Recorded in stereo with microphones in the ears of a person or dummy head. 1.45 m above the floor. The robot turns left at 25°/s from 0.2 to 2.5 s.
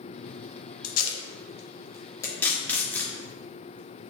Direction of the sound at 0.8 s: 55° left (ahead or behind).